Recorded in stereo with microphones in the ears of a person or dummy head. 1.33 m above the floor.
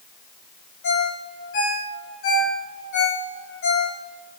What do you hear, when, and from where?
0.8 s a ringtone: 60° left (ahead or behind), 2.5 m